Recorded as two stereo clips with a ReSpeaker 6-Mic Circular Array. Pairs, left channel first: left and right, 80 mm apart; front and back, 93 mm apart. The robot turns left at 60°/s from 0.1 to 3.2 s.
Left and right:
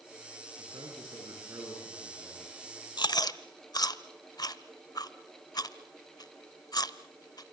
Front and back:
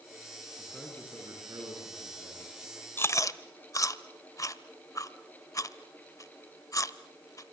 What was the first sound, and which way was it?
A man speaking, 80° right.